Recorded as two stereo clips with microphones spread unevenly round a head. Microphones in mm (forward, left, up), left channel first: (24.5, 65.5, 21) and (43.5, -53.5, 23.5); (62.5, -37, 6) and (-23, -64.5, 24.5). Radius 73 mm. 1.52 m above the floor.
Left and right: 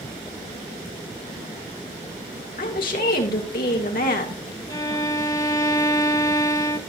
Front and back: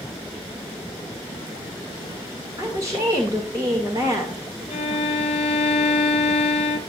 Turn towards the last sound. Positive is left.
turn(degrees=40)